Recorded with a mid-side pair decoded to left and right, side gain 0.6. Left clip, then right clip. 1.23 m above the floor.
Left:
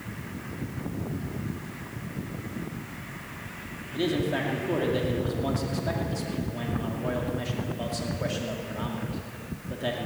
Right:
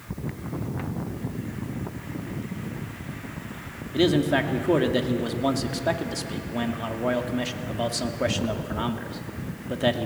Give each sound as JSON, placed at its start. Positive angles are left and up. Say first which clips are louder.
{"t": 3.9, "sound": "a man speaking", "louder": "right 6 dB", "azimuth_deg": -40, "distance_m": 2.5}